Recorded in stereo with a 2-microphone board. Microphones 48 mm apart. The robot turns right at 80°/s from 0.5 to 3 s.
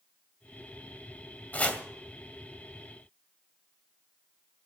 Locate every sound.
1.5 s chopping: 35° left (ahead or behind), 2 m; by 1.8 s 15° left (ahead or behind), 2 m